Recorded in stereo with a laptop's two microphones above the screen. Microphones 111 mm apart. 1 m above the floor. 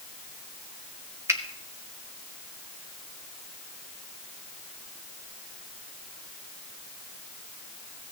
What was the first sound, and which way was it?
A finger snap, 25° right (ahead or behind).